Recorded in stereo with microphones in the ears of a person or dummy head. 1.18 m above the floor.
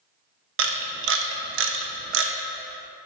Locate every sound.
0.6 s a camera shutter: 85° right, 0.7 m